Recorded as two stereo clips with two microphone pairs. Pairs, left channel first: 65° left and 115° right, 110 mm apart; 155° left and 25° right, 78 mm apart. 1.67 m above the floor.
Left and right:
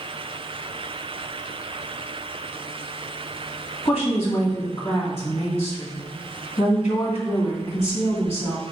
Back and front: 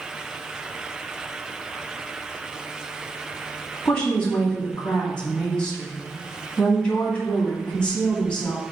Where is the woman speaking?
80° left, 2.5 m.